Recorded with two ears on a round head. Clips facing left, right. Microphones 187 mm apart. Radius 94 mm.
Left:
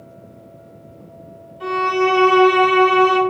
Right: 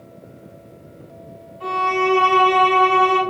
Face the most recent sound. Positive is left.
turn(degrees=55)  # may be behind; listen again after turning